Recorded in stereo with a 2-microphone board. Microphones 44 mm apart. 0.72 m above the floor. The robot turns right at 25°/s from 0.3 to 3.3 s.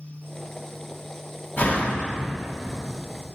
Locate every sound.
1.6 s a door slam: 40° left (ahead or behind), 0.8 m; by 2.2 s 30° left (ahead or behind), 0.8 m